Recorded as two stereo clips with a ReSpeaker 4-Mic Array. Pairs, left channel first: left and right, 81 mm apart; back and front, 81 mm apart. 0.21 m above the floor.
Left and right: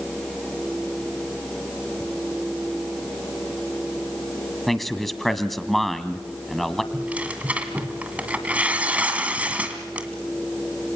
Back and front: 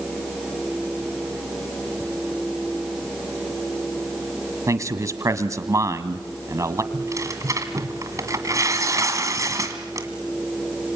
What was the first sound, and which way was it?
A man speaking, 5° left.